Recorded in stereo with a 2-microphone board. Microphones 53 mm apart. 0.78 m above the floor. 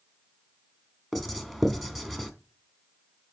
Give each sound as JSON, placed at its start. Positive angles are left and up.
{"t": 1.1, "sound": "writing", "side_deg": -5, "distance_m": 1.1}